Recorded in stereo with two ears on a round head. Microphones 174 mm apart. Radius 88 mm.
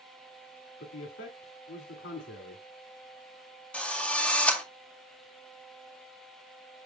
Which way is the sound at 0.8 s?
75° left (ahead or behind).